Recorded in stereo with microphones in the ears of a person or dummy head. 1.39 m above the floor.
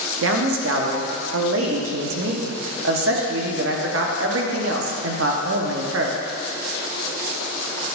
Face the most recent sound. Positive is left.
turn(degrees=-75)  # may be behind; listen again after turning